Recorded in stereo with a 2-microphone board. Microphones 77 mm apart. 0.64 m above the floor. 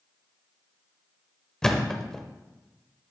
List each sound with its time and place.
1.6 s a thud: 10° left (ahead or behind), 0.9 m